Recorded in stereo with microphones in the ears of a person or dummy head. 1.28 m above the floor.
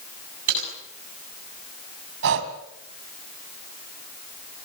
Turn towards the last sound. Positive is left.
turn(degrees=-65)  # may be behind; listen again after turning